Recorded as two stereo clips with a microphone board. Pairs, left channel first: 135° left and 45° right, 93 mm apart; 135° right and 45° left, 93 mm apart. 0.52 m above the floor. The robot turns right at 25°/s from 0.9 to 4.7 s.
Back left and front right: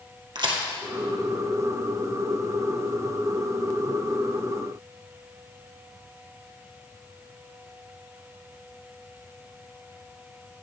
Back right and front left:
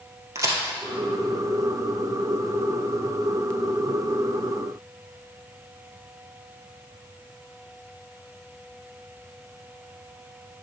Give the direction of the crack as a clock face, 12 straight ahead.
12 o'clock.